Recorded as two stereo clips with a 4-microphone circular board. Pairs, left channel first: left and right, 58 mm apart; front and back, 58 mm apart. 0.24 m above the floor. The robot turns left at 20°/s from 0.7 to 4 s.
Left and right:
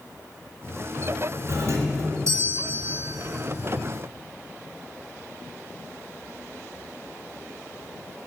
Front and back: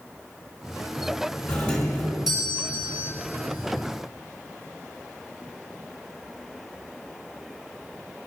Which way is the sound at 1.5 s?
80° right.